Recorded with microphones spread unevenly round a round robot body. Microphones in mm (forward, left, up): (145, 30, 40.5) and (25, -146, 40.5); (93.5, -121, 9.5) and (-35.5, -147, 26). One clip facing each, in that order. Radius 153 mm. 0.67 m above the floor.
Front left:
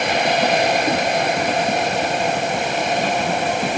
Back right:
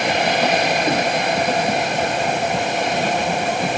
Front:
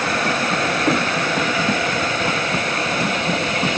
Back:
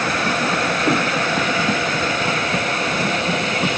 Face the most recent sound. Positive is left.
No sound to turn to.